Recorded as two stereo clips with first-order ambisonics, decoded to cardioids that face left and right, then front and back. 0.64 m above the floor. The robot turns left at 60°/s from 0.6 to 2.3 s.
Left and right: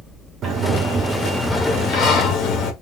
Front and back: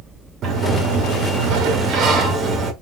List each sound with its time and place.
0.4 s a sliding door: 135° right, 1.0 m; by 2.7 s 120° left, 1.0 m